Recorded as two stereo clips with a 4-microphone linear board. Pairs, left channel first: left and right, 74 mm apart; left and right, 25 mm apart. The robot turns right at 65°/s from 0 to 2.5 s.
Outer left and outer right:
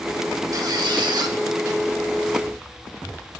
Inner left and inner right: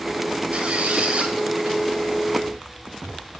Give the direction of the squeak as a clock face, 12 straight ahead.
4 o'clock.